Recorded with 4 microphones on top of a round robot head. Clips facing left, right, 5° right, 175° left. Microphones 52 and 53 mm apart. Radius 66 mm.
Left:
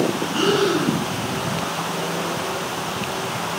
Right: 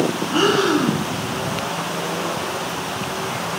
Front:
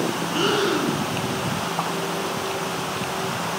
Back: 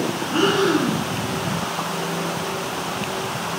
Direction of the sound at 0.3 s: 125° right.